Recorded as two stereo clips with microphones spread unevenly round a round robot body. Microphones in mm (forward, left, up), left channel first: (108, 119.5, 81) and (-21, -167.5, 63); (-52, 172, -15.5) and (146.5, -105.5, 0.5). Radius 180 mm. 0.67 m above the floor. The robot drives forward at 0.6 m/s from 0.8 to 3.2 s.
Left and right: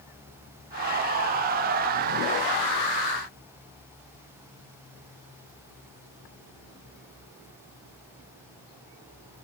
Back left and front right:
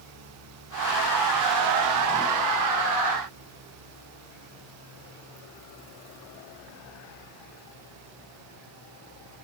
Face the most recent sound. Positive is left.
No sound to turn to.